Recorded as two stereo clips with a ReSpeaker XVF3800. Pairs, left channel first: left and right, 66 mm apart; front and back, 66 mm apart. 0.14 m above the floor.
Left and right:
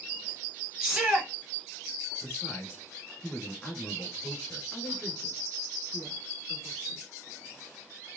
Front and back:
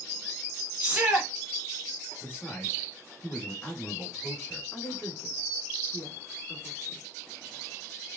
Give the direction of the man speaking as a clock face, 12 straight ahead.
11 o'clock.